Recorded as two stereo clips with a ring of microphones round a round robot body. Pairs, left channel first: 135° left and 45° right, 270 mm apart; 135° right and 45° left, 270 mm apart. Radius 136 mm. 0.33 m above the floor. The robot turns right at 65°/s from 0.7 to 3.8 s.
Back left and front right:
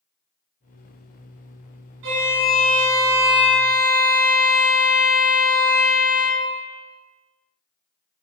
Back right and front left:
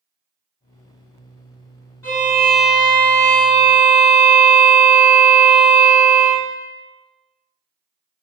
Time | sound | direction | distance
2.0 | a violin | 55° right | 1.1 m